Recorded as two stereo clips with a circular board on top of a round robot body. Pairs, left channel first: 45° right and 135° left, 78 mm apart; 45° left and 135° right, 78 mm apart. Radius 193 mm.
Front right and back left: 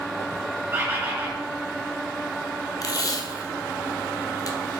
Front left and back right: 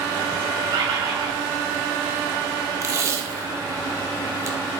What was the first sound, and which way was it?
A bird, 160° right.